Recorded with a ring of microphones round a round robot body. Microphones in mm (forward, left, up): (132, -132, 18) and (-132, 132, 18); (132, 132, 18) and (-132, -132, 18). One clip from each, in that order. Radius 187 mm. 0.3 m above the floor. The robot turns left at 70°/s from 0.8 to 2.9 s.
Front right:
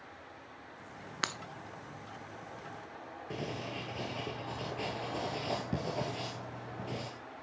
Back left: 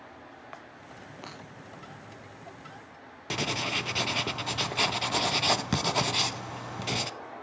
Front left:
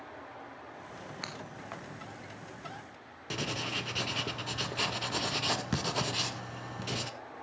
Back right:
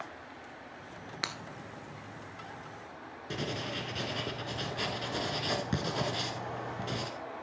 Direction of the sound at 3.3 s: 115° left.